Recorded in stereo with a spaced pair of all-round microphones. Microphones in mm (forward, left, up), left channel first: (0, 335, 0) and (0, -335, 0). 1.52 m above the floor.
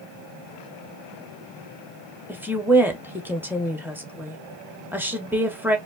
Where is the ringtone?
No ringtone in this recording.